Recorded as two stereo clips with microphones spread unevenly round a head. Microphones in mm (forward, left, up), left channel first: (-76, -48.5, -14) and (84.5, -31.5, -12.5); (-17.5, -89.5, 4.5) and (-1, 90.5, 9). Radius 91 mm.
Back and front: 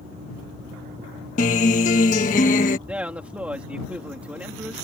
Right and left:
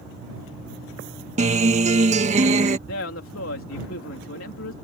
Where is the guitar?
135° left.